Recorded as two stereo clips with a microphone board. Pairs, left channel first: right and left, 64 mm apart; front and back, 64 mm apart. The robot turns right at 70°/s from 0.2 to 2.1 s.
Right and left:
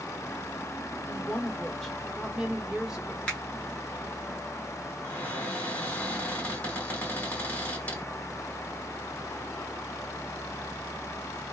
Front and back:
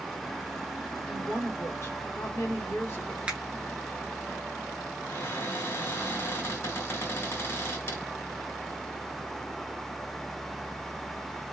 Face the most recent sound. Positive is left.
turn(degrees=-30)